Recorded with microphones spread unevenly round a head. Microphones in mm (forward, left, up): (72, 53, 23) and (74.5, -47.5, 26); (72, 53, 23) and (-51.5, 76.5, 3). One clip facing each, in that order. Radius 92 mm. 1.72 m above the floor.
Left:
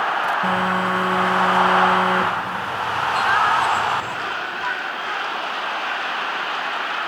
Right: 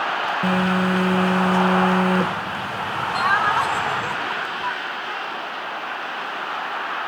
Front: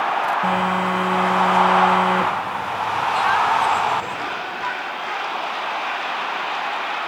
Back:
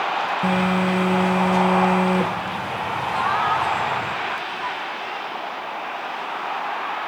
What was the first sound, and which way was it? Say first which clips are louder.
A phone buzzing: even, even; 130° right.